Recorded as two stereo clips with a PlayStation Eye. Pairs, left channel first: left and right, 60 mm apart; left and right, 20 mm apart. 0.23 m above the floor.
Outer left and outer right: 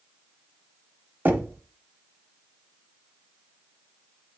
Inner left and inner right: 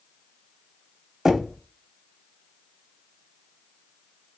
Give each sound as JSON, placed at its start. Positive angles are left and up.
{"t": 1.2, "sound": "knocking", "side_deg": -30, "distance_m": 0.8}